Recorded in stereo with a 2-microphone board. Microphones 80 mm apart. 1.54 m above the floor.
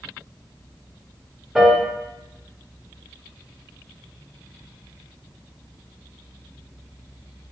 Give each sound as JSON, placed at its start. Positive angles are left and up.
{"t": 1.6, "sound": "a piano", "side_deg": 0, "distance_m": 0.5}